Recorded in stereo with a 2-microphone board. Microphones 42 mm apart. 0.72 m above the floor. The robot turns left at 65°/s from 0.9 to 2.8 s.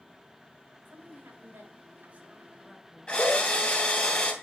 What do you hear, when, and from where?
0.8 s a woman speaking: 50° right (ahead or behind), 2.5 m; by 4.1 s centre (ahead or behind), 2.5 m
3.1 s a drill: 30° left (ahead or behind), 2.5 m